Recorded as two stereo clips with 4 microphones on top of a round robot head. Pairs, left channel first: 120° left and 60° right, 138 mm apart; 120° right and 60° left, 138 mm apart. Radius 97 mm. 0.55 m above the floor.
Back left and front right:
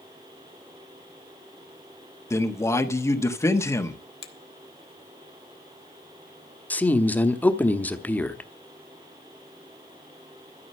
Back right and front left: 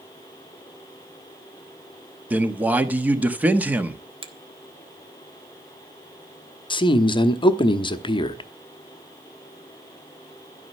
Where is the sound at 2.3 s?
115° left, 1.2 m.